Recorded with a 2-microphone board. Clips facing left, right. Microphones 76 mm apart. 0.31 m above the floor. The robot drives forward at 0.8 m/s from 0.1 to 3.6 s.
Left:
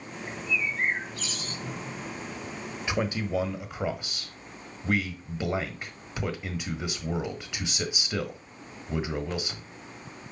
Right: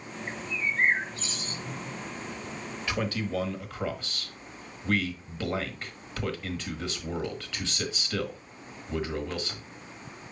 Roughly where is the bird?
Right.